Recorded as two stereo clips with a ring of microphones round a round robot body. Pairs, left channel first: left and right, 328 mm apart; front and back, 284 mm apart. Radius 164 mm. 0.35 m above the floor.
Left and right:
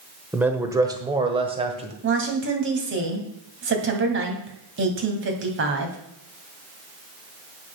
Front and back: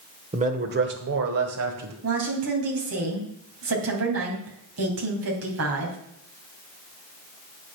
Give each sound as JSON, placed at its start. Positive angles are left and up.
{"t": 0.3, "sound": "a man speaking", "azimuth_deg": -170, "distance_m": 1.2}
{"t": 2.0, "sound": "a woman speaking", "azimuth_deg": -140, "distance_m": 2.5}